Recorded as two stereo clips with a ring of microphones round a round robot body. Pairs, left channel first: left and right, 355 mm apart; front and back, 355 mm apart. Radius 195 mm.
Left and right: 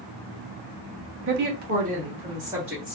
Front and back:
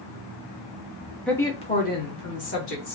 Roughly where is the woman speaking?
Right.